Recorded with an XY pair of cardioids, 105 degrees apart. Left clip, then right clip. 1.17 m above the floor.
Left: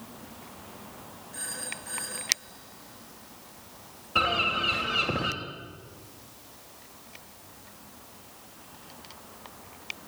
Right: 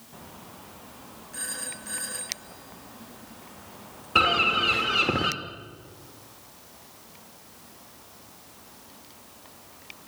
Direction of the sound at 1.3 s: 25° right.